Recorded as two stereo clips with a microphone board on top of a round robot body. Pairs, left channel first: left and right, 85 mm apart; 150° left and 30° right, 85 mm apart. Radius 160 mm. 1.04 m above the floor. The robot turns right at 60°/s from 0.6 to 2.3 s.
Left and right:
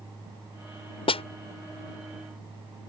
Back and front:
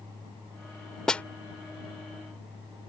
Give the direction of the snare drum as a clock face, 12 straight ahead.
10 o'clock.